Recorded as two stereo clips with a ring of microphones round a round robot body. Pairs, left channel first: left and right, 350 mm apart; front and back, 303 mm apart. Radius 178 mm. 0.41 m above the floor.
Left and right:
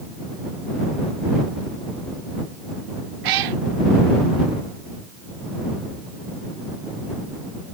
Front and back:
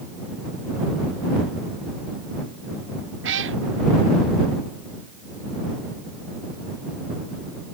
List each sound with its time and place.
3.2 s a cat meowing: 120° right